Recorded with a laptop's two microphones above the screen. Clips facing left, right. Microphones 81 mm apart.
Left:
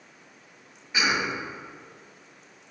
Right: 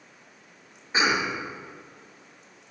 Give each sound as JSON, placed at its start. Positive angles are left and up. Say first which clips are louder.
{"t": 0.9, "sound": "a cough", "louder": "right 2 dB", "side_deg": -30, "distance_m": 0.6}